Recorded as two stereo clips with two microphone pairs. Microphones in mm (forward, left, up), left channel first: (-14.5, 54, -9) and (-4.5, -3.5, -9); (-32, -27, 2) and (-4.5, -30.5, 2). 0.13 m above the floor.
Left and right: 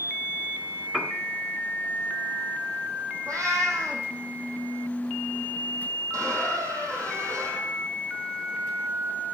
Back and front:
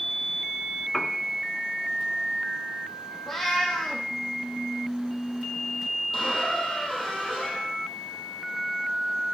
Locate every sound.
0.9 s a piano: 150° right, 1.0 m
3.3 s a cat meowing: 105° right, 2.5 m
6.1 s a squeak: 100° right, 3 m